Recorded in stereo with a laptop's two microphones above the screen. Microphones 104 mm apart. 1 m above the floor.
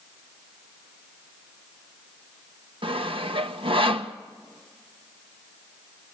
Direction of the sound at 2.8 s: 65° right (ahead or behind).